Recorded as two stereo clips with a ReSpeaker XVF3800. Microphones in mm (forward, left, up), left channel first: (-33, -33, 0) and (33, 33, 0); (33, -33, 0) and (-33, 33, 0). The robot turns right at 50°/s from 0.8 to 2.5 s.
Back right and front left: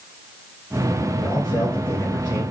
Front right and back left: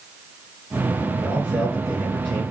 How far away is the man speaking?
About 1.7 m.